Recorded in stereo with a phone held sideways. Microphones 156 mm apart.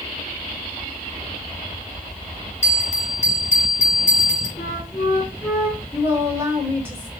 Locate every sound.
2.6 s a bell: 45° left (ahead or behind), 1.1 m
4.6 s a flute: 15° left (ahead or behind), 2 m
5.9 s a woman speaking: 15° right (ahead or behind), 1.3 m